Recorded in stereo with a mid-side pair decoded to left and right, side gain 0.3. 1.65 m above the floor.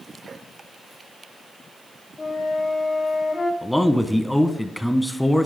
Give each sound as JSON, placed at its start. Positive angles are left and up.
{"t": 2.2, "sound": "a flute", "azimuth_deg": 50, "distance_m": 1.3}
{"t": 3.6, "sound": "a man speaking", "azimuth_deg": 10, "distance_m": 1.2}